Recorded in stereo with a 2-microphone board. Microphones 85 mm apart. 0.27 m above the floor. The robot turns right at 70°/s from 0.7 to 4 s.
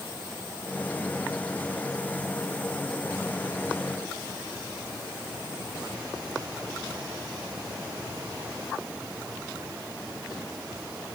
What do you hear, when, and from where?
Only background noise.